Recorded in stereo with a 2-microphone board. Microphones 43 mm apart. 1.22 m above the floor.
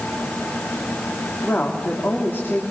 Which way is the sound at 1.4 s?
50° left (ahead or behind).